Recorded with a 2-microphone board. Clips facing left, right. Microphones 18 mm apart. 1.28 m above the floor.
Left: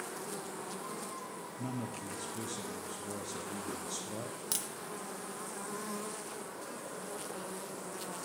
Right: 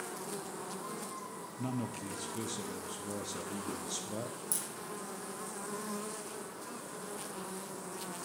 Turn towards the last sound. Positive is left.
turn(degrees=50)  # may be behind; listen again after turning